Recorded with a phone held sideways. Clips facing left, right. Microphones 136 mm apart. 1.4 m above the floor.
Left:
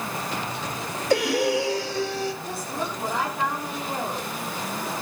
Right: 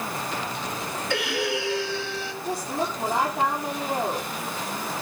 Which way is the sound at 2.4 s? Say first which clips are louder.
Right 3 dB; 20° right (ahead or behind).